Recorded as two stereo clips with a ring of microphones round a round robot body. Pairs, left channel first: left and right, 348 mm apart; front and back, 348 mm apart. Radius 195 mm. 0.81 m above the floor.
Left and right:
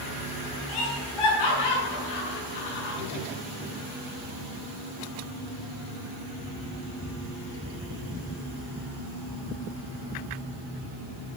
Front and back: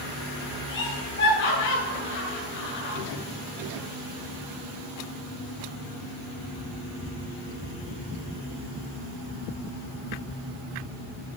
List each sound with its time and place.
0.7 s laughter: 65° left, 7.5 m